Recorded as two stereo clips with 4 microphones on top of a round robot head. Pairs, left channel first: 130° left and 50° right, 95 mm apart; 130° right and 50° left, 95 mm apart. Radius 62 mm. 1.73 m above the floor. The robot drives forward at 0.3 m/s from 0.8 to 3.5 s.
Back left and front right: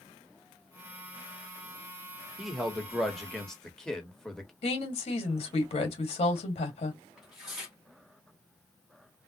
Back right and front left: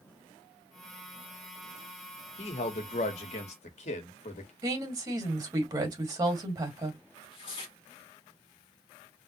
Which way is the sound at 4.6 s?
105° left.